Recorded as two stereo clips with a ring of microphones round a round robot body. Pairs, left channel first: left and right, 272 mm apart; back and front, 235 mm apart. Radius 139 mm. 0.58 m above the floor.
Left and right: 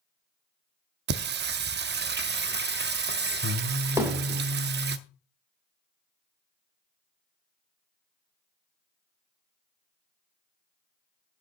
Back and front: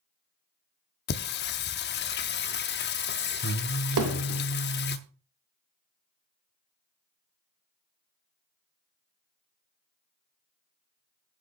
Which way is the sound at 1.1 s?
140° right.